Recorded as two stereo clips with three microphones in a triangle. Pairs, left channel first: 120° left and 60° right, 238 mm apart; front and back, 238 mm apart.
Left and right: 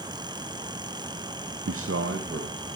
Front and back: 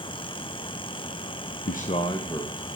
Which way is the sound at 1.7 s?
45° right.